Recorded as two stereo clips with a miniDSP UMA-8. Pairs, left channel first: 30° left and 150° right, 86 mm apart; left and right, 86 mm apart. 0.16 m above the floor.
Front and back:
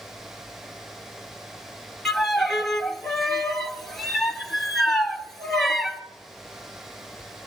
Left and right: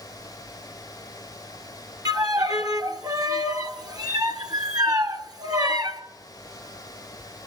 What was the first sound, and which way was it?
A violin, 55° right.